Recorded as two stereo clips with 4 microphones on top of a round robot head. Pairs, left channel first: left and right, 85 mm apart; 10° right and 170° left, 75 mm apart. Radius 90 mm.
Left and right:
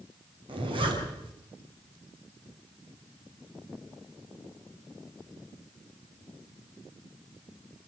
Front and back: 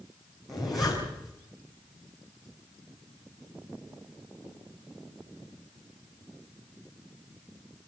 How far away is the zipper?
About 6.5 m.